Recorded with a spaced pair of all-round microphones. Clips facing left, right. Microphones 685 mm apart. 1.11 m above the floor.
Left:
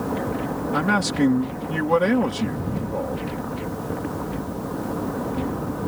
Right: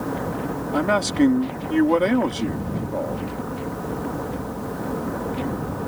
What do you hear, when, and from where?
0.7 s a man speaking: 40° left (ahead or behind)